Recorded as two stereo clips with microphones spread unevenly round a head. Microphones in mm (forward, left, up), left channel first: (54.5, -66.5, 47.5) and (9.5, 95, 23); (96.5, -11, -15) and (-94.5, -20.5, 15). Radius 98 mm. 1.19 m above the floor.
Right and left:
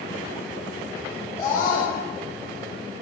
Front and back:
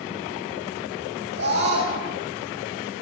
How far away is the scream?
About 8 m.